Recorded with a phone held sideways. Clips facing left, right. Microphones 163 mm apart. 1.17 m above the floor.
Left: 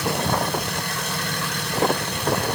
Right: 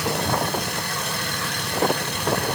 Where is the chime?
No chime in this recording.